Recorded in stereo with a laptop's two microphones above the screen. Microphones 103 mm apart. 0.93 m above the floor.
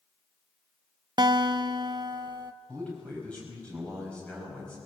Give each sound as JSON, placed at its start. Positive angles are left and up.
{"t": 1.2, "sound": "a guitar", "side_deg": -45, "distance_m": 0.8}
{"t": 2.7, "sound": "a man speaking", "side_deg": 10, "distance_m": 4.5}